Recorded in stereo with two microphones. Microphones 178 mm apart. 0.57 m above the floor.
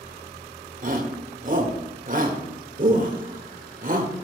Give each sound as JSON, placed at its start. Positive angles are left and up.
{"t": 0.8, "sound": "a shout", "side_deg": -50, "distance_m": 1.7}